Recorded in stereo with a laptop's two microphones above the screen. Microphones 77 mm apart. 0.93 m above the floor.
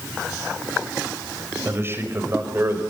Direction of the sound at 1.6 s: 30° right (ahead or behind).